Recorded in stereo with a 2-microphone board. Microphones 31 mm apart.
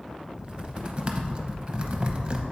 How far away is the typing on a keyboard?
About 0.7 m.